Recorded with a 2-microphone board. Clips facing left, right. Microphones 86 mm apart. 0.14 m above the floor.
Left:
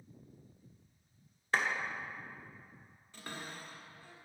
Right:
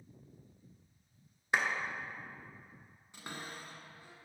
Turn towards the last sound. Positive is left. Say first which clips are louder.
# even
turn(degrees=-15)  # may be behind; listen again after turning